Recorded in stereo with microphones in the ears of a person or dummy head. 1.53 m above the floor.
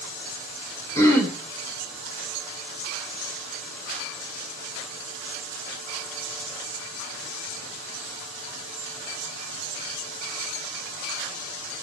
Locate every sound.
0.9 s throat clearing: 15° left (ahead or behind), 2 m